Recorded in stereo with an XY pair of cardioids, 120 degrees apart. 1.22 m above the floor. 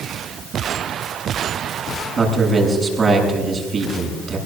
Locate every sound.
2.2 s a man speaking: 30° right, 8 m